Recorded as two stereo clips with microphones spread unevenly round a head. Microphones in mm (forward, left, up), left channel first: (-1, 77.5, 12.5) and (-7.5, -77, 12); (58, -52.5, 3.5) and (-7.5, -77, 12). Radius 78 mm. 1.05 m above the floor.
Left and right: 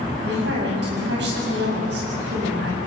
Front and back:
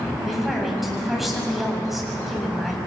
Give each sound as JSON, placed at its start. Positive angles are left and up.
{"t": 0.2, "sound": "a woman speaking", "azimuth_deg": -70, "distance_m": 7.5}